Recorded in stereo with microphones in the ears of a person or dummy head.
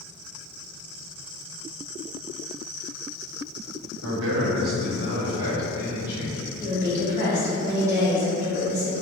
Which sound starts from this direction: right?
A man speaking, at 4.0 s.